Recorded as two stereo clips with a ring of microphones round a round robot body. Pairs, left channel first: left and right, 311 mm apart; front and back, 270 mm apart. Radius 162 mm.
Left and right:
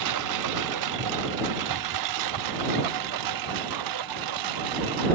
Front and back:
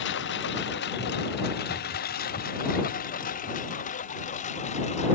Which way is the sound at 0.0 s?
55° right.